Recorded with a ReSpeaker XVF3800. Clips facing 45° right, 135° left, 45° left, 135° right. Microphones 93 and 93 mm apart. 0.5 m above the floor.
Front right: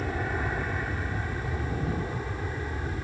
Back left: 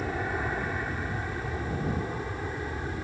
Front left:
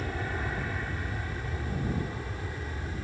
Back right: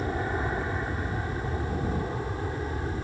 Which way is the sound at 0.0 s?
140° right.